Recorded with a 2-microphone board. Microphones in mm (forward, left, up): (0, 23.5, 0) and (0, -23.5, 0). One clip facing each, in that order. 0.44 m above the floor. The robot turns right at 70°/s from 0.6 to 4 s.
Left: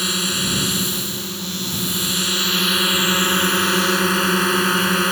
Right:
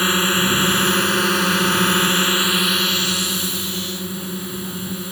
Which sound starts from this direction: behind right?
A drone, at 0.0 s.